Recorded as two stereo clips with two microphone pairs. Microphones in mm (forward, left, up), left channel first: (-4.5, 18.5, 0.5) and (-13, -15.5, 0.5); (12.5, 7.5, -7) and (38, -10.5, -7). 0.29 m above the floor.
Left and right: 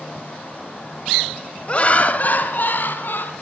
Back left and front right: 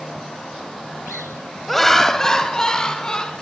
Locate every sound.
1.7 s laughter: 65° left, 1.6 m; by 3.3 s 85° left, 3.5 m